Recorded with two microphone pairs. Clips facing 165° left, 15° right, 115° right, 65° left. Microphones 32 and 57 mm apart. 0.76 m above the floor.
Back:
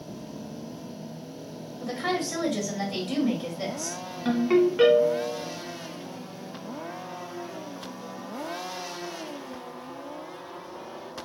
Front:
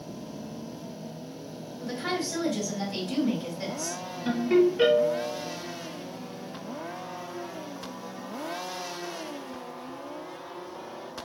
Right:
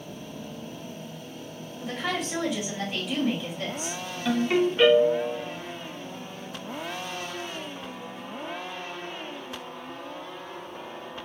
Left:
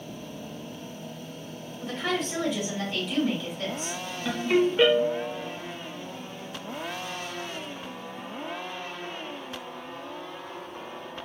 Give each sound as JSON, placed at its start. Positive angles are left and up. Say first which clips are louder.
{"t": 1.8, "sound": "a woman speaking", "louder": "back 2 dB, left 1 dB", "azimuth_deg": 170, "distance_m": 1.7}
{"t": 4.2, "sound": "a ringtone", "louder": "back 1 dB, even", "azimuth_deg": 155, "distance_m": 1.6}